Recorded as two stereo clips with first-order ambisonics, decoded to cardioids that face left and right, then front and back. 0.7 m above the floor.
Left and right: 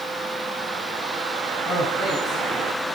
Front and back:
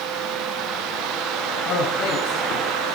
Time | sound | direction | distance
1.6 | a man speaking | 25° left | 4.5 m